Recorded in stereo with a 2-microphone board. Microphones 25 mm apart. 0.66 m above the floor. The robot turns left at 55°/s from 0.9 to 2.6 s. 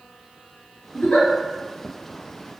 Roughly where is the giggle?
Left.